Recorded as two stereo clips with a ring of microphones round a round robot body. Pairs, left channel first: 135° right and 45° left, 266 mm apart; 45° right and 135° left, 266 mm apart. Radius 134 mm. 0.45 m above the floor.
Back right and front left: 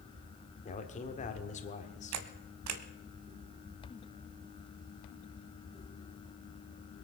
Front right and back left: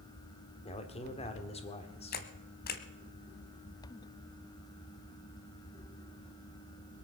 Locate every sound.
0.7 s a man speaking: 95° right, 1.6 m
2.1 s a camera shutter: 15° left, 1.1 m